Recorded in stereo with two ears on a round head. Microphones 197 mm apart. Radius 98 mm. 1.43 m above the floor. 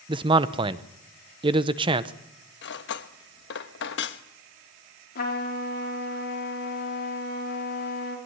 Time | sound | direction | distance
0.1 | a man speaking | 25° right (ahead or behind) | 0.9 m
2.6 | cutlery clinking | 55° left (ahead or behind) | 1.2 m
5.2 | a trumpet | 45° left (ahead or behind) | 3.5 m